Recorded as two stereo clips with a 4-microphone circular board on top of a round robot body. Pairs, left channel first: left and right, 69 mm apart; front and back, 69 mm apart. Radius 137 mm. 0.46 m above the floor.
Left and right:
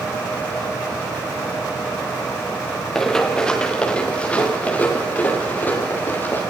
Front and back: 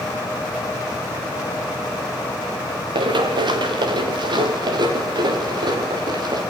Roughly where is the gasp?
No gasp in this recording.